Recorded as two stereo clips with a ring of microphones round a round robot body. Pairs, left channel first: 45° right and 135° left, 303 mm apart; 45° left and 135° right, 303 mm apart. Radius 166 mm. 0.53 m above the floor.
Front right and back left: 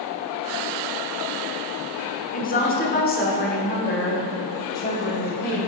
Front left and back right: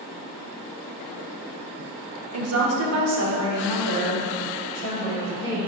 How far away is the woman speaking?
About 1.0 m.